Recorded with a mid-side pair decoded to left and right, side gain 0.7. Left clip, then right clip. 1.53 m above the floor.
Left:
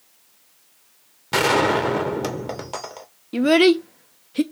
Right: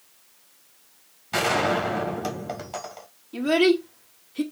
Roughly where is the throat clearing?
I don't hear throat clearing.